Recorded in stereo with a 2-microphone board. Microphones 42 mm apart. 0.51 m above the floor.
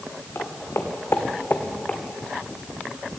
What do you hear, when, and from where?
0.3 s footsteps: 75° left (ahead or behind), 1.9 m; by 2.0 s 25° left (ahead or behind), 1.3 m